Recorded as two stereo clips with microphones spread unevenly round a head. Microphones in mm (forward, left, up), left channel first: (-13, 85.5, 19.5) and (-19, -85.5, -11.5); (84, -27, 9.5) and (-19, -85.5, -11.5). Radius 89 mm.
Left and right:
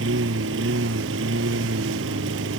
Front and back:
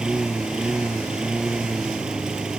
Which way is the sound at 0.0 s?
65° right.